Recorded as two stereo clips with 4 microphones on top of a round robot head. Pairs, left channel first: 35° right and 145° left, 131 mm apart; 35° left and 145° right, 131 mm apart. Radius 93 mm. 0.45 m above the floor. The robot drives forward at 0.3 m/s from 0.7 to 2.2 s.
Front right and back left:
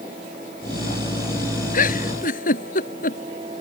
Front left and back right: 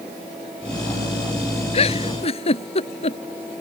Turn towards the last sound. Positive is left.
turn(degrees=-10)